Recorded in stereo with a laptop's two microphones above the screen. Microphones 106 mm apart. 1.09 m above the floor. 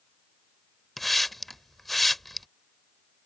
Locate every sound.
1.0 s a hiss: centre (ahead or behind)